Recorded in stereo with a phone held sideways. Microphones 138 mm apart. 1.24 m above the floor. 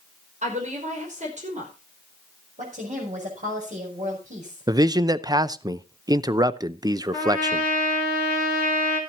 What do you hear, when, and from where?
0.4 s a woman speaking: 60° right (ahead or behind), 5 m
2.6 s a woman speaking: 65° right (ahead or behind), 5.5 m
4.7 s a man speaking: 25° right (ahead or behind), 0.6 m
7.1 s a trumpet: 75° right (ahead or behind), 3.5 m